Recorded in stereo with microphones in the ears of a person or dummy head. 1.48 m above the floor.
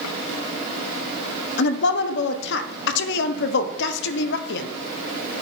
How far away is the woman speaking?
About 0.7 m.